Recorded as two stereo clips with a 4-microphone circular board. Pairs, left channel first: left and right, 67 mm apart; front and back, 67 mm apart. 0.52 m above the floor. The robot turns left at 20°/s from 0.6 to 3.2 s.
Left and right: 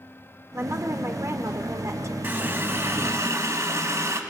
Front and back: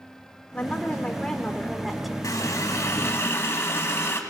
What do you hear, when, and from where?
0.5 s a woman speaking: 65° right, 1.7 m; by 2.1 s 95° right, 1.7 m
2.2 s a running tap: 35° right, 2.5 m; by 4.2 s 50° right, 2.5 m